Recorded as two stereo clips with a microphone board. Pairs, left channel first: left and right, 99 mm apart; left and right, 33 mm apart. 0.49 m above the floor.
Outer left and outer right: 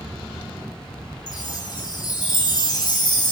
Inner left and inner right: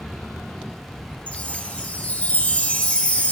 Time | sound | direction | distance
1.3 | a chime | 45° left (ahead or behind) | 1.0 m